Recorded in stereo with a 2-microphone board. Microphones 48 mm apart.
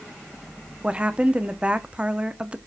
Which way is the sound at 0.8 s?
25° right (ahead or behind).